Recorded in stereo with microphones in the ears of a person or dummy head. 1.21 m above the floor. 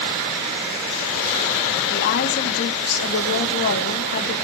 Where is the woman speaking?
50° left (ahead or behind), 2 m.